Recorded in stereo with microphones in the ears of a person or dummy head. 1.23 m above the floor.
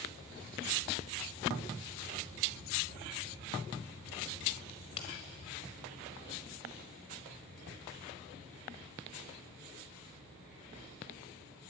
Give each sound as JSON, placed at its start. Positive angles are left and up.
{"t": 4.7, "sound": "a crack", "side_deg": 30, "distance_m": 1.4}